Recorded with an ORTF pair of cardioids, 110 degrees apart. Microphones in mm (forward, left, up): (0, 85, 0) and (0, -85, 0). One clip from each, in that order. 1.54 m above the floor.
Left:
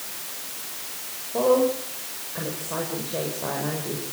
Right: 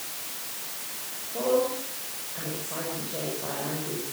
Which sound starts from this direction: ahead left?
A woman speaking, at 1.3 s.